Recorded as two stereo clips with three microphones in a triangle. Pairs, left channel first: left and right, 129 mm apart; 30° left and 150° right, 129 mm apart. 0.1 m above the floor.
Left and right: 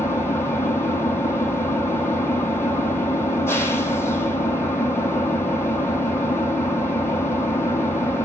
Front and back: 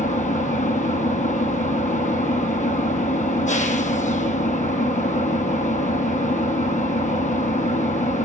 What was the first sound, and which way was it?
An engine running, 20° left.